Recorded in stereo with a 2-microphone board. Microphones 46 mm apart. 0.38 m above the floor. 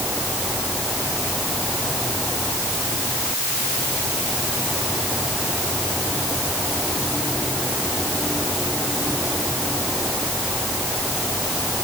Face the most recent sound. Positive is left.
No sound to turn to.